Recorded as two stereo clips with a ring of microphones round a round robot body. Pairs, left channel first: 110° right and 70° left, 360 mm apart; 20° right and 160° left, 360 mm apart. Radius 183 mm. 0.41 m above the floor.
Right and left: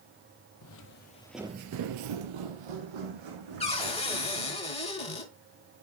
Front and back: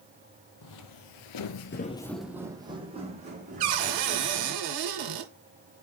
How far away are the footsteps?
About 1.0 m.